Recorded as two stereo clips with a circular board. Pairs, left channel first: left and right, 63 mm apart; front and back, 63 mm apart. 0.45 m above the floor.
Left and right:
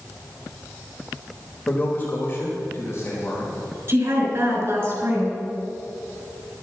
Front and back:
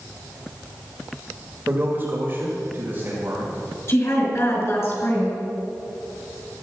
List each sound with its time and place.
1.7 s a man speaking: 140° left, 2 m; by 3.6 s 120° left, 3.5 m
3.9 s a woman speaking: 40° right, 5.5 m